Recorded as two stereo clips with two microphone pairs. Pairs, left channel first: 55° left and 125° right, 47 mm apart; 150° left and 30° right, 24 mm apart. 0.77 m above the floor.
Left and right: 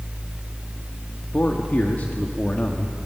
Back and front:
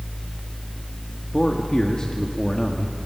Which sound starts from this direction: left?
A man speaking, at 1.3 s.